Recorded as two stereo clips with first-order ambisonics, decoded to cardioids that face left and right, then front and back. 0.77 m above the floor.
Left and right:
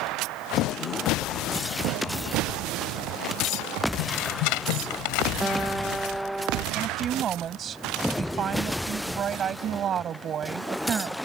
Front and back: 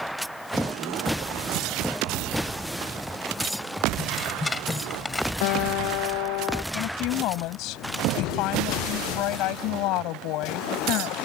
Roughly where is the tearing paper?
Left.